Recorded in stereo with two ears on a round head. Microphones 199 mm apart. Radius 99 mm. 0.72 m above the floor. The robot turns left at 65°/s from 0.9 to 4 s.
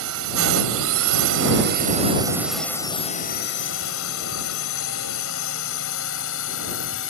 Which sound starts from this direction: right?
A drone, at 0.0 s.